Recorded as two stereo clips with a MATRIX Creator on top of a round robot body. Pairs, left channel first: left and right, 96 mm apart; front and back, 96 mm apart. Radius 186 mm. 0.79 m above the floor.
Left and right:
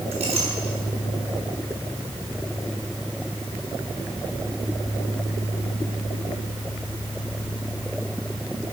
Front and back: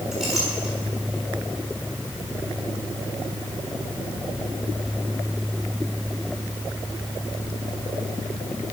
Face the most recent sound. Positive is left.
turn(degrees=-95)